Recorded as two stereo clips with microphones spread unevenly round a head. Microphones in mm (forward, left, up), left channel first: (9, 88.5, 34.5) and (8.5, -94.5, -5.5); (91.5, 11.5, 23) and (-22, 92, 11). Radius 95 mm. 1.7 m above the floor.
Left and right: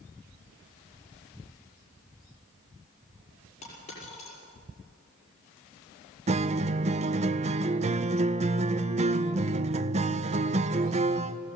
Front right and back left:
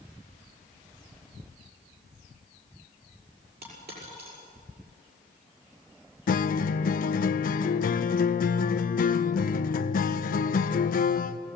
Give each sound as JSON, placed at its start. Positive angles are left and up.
{"t": 3.6, "sound": "a dropped coin", "azimuth_deg": 140, "distance_m": 6.0}
{"t": 6.3, "sound": "a guitar", "azimuth_deg": -30, "distance_m": 0.5}